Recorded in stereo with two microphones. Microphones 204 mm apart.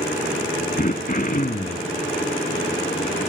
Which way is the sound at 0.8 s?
40° left (ahead or behind).